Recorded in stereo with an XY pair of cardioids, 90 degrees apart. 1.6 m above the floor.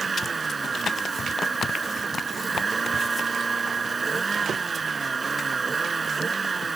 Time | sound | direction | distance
0.0 | a vehicle | 35° right | ?